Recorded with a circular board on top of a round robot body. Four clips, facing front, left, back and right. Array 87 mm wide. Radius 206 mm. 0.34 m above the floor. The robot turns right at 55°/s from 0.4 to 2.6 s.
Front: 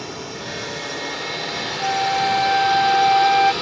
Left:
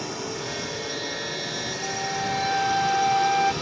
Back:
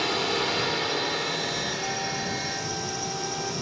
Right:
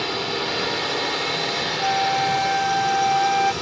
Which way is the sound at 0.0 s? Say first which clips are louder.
Right 6 dB, back 5 dB; 130° right.